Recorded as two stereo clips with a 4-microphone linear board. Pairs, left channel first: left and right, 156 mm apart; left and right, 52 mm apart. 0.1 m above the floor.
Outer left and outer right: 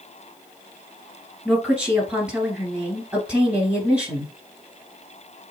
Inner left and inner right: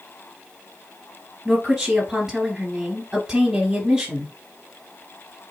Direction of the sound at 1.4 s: 5° right (ahead or behind).